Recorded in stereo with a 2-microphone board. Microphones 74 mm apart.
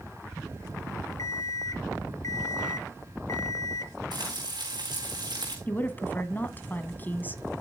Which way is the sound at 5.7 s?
25° left (ahead or behind).